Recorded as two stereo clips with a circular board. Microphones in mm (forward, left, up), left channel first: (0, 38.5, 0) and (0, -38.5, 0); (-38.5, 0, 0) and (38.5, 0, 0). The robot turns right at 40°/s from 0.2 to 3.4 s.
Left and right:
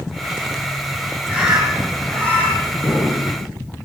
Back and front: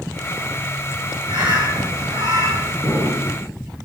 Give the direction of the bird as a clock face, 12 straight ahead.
1 o'clock.